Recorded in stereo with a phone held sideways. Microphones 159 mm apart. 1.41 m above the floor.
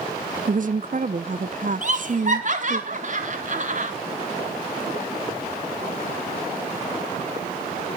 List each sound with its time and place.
0.5 s a woman speaking: 55° right (ahead or behind), 0.6 m
1.8 s laughter: 55° right (ahead or behind), 4 m